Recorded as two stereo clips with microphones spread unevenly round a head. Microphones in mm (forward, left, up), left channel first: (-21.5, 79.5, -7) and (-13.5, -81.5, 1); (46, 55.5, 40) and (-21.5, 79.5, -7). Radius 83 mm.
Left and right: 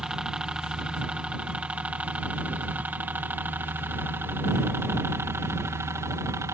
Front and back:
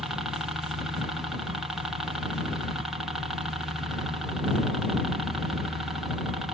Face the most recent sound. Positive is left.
turn(degrees=-155)